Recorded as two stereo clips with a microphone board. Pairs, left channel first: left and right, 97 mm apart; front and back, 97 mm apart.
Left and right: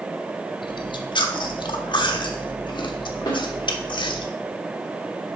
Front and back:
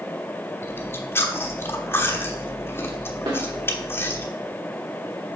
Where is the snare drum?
140° left, 2 m.